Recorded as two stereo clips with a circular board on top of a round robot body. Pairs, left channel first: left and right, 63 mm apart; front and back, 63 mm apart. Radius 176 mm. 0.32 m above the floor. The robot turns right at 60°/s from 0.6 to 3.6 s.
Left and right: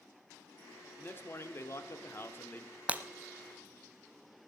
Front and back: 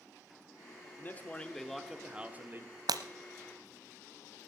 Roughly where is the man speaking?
Ahead left.